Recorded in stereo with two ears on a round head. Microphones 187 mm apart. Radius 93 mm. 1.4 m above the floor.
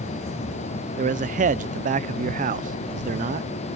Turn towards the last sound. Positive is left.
turn(degrees=-40)  # may be behind; listen again after turning